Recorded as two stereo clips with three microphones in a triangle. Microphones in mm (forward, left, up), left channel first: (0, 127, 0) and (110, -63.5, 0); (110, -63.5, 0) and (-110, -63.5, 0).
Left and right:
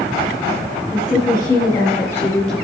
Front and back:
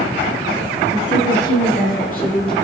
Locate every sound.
0.9 s a woman speaking: 55° left, 4 m; by 2.5 s 35° left, 3 m